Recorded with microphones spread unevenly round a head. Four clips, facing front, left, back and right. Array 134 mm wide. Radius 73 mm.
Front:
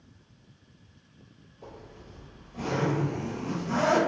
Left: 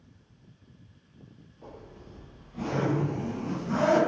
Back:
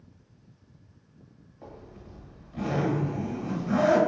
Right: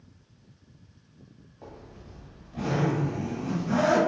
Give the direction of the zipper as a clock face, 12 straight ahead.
4 o'clock.